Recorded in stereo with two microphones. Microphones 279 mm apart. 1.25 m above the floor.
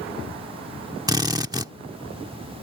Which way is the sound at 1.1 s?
15° right (ahead or behind).